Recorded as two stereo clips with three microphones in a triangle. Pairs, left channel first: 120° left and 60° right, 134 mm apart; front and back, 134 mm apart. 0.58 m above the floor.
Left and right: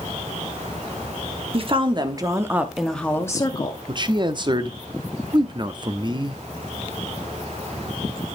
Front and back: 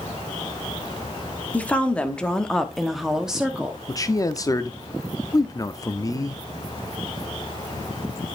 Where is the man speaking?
45° right, 0.7 m.